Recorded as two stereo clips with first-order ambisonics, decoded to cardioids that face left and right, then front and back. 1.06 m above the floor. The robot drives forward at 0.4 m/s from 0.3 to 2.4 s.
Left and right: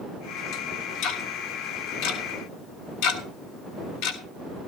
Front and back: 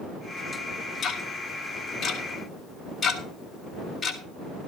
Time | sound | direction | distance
1.0 | ticking | 65° left | 2 m